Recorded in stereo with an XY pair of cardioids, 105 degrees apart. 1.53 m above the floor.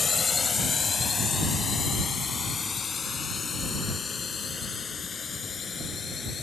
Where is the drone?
30° left; by 6.4 s 35° left.